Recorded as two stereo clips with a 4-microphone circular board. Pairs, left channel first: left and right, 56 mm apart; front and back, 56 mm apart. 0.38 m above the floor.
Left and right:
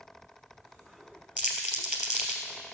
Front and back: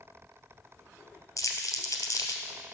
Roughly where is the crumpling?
Ahead.